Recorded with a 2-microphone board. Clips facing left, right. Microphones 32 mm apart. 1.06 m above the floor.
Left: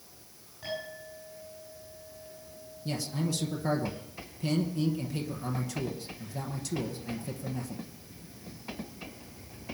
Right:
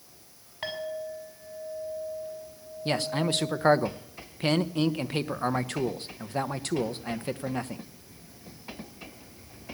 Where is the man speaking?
55° right (ahead or behind), 0.8 m.